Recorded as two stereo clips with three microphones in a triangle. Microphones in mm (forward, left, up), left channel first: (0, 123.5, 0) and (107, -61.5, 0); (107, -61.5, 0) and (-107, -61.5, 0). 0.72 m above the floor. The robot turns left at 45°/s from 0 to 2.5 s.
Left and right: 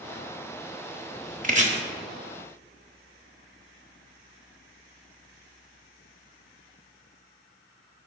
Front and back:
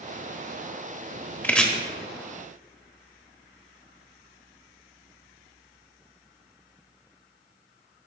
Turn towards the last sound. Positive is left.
turn(degrees=-125)